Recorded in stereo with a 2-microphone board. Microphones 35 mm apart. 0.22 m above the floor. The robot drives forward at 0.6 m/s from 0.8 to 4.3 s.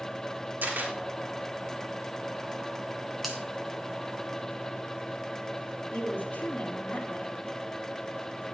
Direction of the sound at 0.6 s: 65° right (ahead or behind).